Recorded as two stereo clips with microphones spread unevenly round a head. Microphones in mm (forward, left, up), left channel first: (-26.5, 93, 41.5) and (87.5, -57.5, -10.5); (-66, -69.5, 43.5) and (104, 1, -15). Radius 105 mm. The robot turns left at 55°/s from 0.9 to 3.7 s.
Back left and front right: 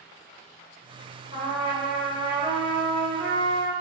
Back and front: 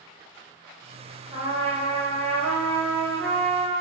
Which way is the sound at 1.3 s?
105° left.